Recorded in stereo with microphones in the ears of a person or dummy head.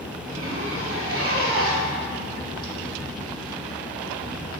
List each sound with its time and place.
0.2 s a zipper: 55° right (ahead or behind), 1.4 m